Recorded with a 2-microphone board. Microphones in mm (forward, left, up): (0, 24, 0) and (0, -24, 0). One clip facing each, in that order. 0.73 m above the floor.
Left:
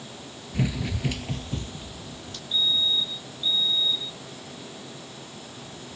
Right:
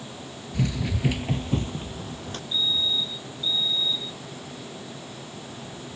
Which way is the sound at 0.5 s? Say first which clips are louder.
Right 1 dB; 20° left (ahead or behind).